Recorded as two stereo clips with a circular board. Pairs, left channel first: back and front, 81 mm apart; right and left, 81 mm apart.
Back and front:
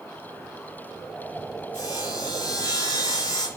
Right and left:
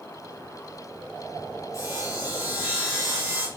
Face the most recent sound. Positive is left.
turn(degrees=-140)